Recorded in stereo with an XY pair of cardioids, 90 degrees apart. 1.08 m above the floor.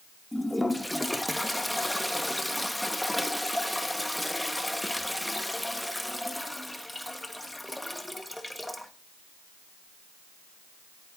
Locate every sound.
0.3 s a toilet flushing: 10° left, 1.4 m